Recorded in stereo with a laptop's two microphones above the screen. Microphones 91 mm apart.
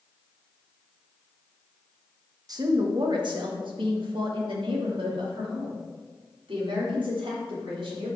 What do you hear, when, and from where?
2.5 s a woman speaking: 45° right (ahead or behind), 1.2 m; by 8.2 s 80° right, 4 m